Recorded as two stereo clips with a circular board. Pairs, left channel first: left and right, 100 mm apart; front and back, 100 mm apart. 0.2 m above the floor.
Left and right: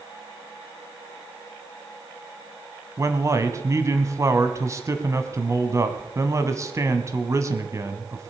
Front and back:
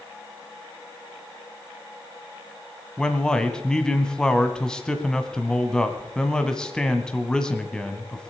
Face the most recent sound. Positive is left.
turn(degrees=-75)